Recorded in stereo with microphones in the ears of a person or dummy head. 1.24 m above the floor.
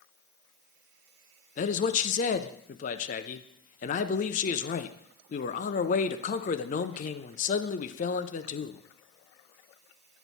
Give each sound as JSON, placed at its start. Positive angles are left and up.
{"t": 1.6, "sound": "a man speaking", "side_deg": 40, "distance_m": 0.5}